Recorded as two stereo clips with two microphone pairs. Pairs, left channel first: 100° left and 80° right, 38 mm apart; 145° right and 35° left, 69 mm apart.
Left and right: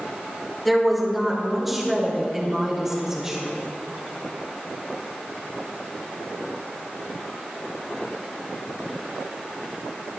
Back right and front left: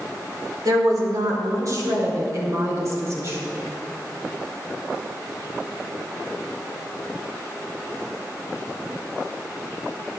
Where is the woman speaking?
10° left, 3.5 m; by 3.4 s 10° right, 4.5 m.